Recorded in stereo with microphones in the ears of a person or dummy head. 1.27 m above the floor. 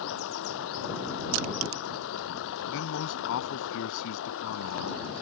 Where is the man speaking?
80° left.